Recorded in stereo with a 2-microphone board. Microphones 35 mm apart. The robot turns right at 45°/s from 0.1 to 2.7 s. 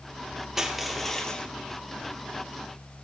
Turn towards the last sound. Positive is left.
turn(degrees=80)